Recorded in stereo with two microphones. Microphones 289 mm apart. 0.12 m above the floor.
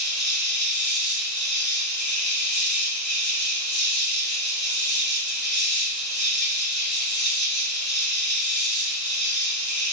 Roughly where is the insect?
Left.